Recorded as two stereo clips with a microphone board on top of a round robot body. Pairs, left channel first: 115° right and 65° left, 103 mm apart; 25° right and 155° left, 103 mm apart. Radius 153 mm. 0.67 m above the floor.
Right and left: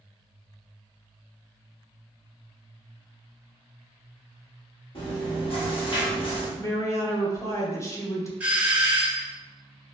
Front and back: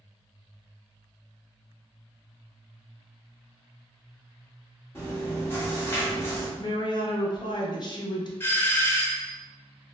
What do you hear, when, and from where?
5.0 s chewing: 85° right, 1.4 m
6.6 s a woman speaking: 55° right, 1.1 m
8.4 s a doorbell: 10° left, 1.0 m